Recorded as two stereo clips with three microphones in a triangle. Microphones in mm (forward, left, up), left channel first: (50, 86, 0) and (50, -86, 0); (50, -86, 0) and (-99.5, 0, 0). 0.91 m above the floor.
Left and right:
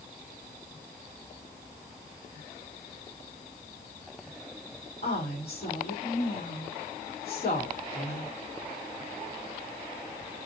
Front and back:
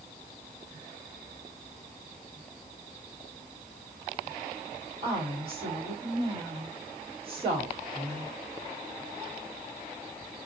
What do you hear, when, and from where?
5.0 s a woman speaking: 100° left, 3 m